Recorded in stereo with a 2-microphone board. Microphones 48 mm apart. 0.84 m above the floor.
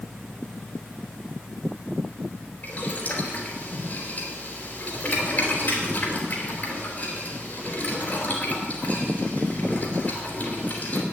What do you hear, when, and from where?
2.6 s boiling: 40° left (ahead or behind), 3.5 m